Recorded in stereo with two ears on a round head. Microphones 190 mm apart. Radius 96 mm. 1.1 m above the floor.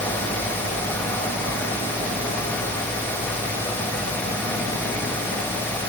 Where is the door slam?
No door slam in this recording.